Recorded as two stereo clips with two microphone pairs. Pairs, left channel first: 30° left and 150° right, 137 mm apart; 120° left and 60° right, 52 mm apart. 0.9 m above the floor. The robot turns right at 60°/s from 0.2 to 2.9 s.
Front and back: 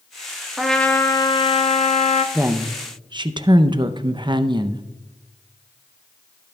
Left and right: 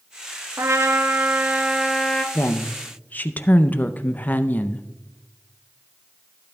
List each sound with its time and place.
0.6 s a trumpet: 60° right, 0.9 m; by 2.2 s 40° left, 0.9 m
2.4 s a woman speaking: 135° left, 0.5 m; by 4.8 s 165° left, 0.5 m